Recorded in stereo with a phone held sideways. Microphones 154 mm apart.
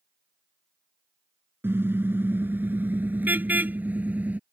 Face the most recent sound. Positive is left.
turn(degrees=-10)  # may be behind; listen again after turning